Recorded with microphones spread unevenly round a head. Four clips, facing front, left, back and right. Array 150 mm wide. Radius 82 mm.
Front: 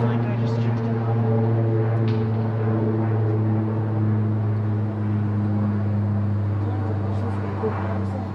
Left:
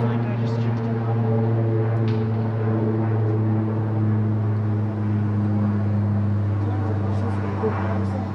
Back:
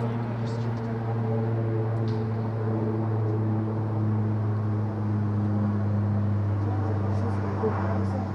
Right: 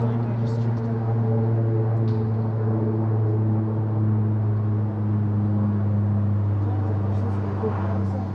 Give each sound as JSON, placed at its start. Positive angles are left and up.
{"t": 0.0, "sound": "an aircraft", "azimuth_deg": 35}